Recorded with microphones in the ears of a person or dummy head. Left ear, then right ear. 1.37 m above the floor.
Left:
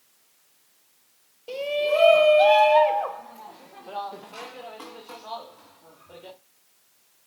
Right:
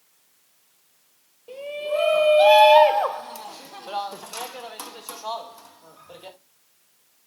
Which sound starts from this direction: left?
A shout, at 1.5 s.